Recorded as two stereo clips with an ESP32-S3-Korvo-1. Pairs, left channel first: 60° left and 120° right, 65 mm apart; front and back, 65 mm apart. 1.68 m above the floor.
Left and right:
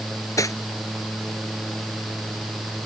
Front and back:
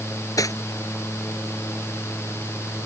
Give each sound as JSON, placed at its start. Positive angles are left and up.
{"t": 0.4, "sound": "cutlery clinking", "azimuth_deg": 30}